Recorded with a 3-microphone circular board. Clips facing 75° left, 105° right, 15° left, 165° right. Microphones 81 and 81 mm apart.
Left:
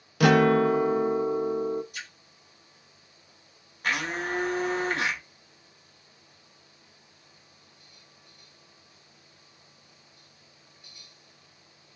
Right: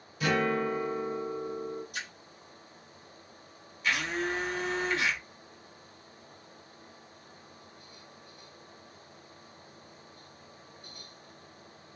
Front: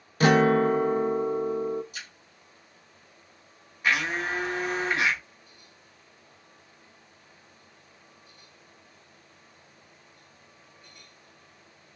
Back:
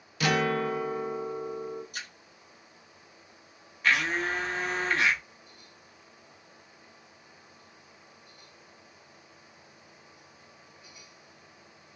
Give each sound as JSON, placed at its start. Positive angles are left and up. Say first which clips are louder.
{"t": 0.2, "sound": "a guitar", "louder": "left 9 dB, front 7 dB", "azimuth_deg": 65, "distance_m": 0.5}
{"t": 1.9, "sound": "a splash", "louder": "right 2 dB, back 1 dB", "azimuth_deg": -125, "distance_m": 1.7}
{"t": 3.8, "sound": "a blender", "louder": "left 1 dB, even", "azimuth_deg": 90, "distance_m": 1.2}